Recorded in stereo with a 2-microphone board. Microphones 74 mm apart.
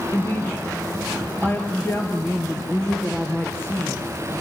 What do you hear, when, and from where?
0.1 s a woman speaking: 30° left (ahead or behind), 2.5 m